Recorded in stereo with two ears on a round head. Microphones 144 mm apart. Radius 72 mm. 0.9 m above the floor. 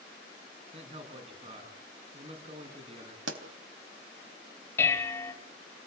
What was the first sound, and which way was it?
A man speaking, 35° right (ahead or behind).